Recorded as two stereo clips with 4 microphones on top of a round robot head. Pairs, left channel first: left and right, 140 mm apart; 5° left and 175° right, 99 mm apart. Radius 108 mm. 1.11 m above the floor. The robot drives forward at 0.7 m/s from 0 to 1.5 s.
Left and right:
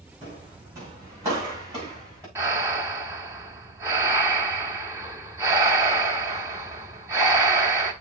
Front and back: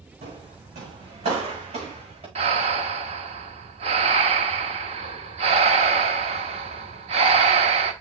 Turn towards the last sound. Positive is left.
turn(degrees=-165)